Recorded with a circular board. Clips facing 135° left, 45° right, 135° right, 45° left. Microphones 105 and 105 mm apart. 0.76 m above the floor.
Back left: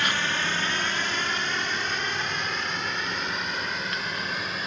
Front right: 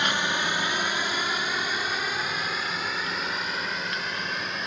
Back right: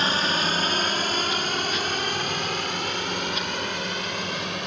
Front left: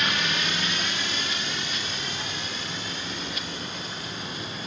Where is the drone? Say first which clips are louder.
Front right 1 dB, back right 4 dB; 110° right; by 4.7 s 135° right.